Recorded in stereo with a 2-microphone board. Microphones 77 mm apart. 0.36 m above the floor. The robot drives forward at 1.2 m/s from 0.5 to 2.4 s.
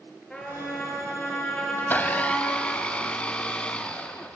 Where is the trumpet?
5° left (ahead or behind), 4 m; by 2.8 s 15° left (ahead or behind), 1.8 m.